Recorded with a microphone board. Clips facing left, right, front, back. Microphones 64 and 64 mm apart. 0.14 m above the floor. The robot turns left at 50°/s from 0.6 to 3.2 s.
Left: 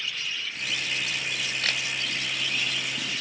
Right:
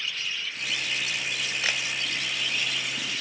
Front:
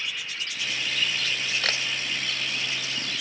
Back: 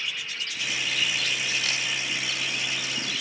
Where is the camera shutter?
10° right, 0.7 m; by 1.8 s 20° right, 0.7 m.